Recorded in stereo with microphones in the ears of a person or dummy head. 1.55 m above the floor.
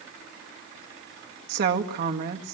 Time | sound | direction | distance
1.5 | a woman speaking | 55° right (ahead or behind) | 1.9 m